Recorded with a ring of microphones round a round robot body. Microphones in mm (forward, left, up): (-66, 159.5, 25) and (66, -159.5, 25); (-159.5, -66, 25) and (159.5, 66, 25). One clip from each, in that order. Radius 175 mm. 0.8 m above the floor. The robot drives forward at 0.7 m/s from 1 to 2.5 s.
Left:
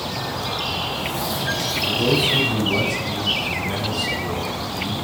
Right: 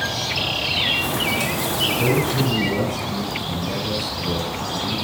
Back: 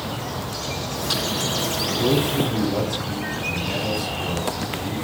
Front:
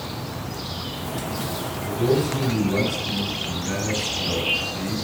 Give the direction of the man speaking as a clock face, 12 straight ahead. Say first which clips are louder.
Left 3 dB, front 2 dB; 8 o'clock.